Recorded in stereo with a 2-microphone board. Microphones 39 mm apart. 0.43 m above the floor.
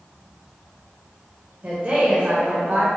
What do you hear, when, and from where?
1.6 s a woman speaking: 40° right (ahead or behind), 1.5 m; by 2.9 s 50° right (ahead or behind), 1.3 m